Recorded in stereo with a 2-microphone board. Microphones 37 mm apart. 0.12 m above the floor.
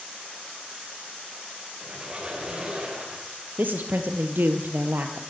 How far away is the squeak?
About 8 m.